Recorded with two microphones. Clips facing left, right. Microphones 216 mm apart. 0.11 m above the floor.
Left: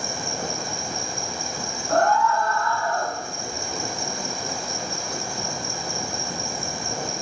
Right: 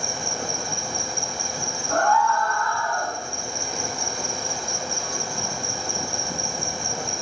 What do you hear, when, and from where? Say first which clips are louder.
0.0 s an insect: even; 20° left (ahead or behind), 1.5 m
1.9 s a scream: left 2 dB; 35° left (ahead or behind), 4.5 m